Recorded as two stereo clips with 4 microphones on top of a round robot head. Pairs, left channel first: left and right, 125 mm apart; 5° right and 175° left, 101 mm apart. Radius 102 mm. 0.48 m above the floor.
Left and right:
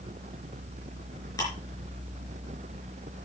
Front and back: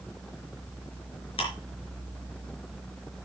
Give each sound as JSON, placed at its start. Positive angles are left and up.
{"t": 1.4, "sound": "ticking", "azimuth_deg": 20, "distance_m": 4.5}